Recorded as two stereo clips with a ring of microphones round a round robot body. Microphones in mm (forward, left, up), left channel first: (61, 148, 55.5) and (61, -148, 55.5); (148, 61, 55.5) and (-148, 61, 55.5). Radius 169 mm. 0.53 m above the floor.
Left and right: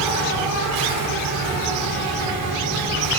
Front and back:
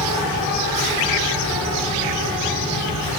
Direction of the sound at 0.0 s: 80° right.